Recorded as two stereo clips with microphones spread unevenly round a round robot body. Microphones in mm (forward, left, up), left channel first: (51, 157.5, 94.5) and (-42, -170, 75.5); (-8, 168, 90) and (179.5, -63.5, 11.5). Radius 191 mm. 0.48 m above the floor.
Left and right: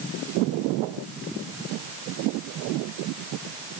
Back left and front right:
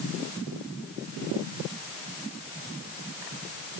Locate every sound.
Only background noise.